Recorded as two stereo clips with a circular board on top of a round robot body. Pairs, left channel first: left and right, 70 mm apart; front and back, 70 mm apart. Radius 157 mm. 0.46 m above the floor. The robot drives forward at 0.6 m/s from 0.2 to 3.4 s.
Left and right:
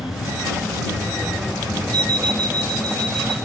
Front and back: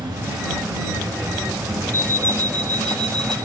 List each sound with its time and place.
0.0 s an insect: 175° right, 7 m
1.9 s an alarm clock: 55° right, 2.0 m; by 3.4 s 85° right, 1.7 m